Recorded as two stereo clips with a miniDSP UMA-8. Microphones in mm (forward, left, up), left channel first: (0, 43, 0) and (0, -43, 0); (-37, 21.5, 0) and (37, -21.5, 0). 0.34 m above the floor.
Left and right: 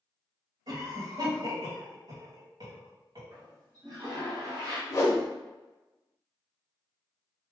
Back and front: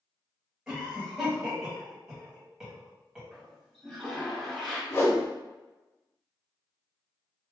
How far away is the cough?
About 1.7 m.